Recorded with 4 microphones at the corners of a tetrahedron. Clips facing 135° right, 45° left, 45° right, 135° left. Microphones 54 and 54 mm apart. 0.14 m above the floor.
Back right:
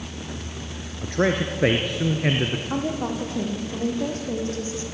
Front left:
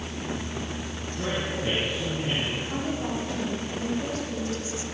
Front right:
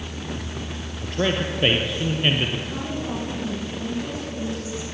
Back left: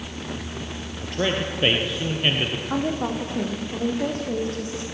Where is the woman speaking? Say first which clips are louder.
Back right 3 dB, back left 4 dB; 175° left, 7 m.